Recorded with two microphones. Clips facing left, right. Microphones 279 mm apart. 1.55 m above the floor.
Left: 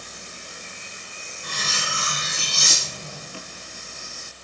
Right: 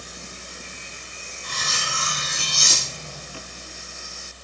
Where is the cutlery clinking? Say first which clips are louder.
Left 1 dB; 65° left (ahead or behind), 2.5 m.